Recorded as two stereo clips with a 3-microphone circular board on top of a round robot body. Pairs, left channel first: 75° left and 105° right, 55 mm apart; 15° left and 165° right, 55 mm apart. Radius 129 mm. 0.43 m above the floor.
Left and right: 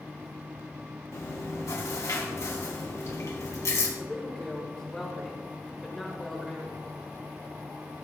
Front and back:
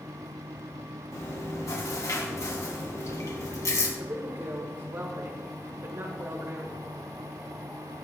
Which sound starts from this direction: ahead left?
Chewing, at 1.1 s.